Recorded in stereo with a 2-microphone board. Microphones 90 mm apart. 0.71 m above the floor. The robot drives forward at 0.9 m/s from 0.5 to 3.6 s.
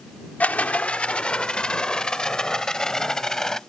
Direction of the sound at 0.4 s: 15° left (ahead or behind).